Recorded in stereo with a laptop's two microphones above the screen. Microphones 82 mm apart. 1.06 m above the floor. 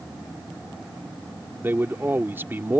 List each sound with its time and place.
1.6 s a man speaking: 25° right (ahead or behind)